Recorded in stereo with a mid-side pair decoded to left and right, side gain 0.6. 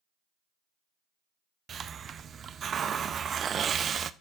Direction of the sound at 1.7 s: 40° right.